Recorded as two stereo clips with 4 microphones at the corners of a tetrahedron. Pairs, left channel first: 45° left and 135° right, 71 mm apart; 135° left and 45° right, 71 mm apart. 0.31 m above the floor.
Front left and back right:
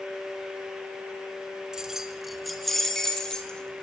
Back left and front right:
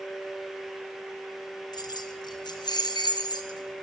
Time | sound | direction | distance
1.7 | keys jangling | 145° left | 3 m